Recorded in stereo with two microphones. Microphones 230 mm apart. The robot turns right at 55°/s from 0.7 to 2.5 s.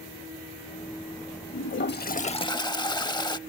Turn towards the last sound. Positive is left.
turn(degrees=160)